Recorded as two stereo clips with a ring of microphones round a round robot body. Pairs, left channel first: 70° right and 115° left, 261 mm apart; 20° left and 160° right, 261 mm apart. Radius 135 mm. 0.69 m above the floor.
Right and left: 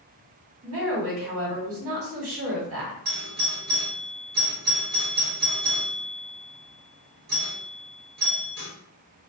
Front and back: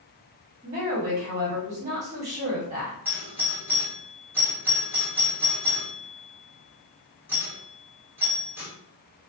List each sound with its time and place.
0.6 s a woman speaking: 140° left, 1.5 m
3.0 s a doorbell: 125° left, 1.2 m